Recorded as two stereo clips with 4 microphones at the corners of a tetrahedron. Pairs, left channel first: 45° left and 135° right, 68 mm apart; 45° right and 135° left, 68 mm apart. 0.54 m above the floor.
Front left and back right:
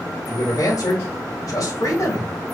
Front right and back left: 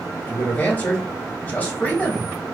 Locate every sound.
0.3 s a man speaking: 20° left, 2.5 m